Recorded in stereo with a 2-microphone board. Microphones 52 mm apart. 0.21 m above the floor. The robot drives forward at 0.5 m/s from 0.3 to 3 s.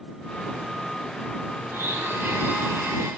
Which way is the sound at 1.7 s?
65° right (ahead or behind).